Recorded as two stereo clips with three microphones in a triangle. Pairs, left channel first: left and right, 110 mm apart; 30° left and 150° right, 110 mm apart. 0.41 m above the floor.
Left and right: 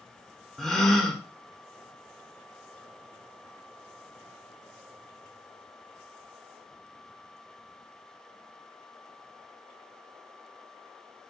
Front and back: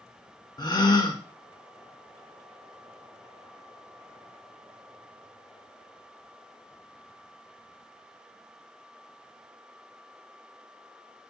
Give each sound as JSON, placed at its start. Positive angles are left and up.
{"t": 0.6, "sound": "a gasp", "azimuth_deg": 5, "distance_m": 0.6}